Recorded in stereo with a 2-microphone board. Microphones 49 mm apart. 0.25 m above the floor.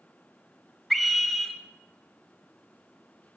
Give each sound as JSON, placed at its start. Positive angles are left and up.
{"t": 0.9, "sound": "a scream", "side_deg": 0, "distance_m": 1.1}